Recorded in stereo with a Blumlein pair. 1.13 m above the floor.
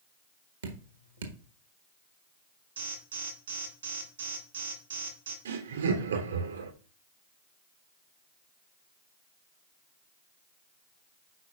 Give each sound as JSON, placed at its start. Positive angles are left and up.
{"t": 0.6, "sound": "dripping", "azimuth_deg": -70, "distance_m": 1.4}
{"t": 2.8, "sound": "an alarm", "azimuth_deg": -70, "distance_m": 3.0}
{"t": 5.5, "sound": "laughter", "azimuth_deg": -65, "distance_m": 3.0}